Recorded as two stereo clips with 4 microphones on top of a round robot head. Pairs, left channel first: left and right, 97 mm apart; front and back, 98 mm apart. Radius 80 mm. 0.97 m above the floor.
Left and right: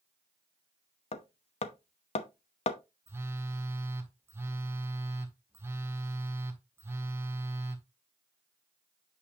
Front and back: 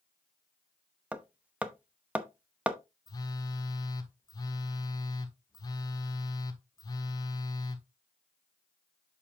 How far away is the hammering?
About 0.8 m.